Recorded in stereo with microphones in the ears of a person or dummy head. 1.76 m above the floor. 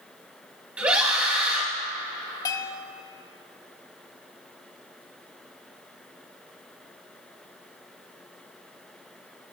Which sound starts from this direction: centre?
A scream, at 0.8 s.